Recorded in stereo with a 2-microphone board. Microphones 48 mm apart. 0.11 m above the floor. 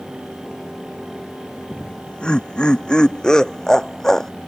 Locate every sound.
1.7 s laughter: 25° left (ahead or behind); by 4.3 s 10° left (ahead or behind)